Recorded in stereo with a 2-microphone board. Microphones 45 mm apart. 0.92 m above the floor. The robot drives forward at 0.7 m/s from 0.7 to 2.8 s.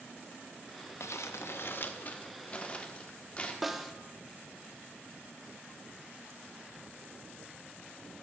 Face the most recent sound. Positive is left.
turn(degrees=0)  # may be behind; listen again after turning